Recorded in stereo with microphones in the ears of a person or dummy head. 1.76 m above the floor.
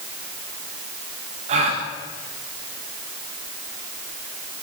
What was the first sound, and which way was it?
A gasp, 40° right (ahead or behind).